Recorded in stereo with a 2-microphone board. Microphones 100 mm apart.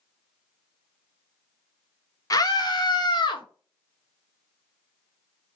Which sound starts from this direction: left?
A scream, at 2.3 s.